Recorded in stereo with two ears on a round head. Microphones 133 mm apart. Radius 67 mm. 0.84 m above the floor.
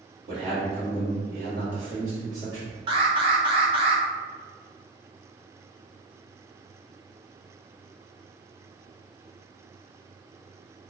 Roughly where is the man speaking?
Right.